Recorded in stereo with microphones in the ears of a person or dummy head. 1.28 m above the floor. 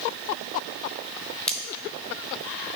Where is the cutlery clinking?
Centre (ahead or behind), 1.1 m.